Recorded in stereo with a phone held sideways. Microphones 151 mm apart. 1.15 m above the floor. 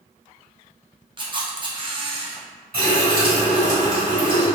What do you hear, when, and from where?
1.2 s a camera shutter: 35° right (ahead or behind), 0.5 m
2.7 s a running tap: 80° right, 1.8 m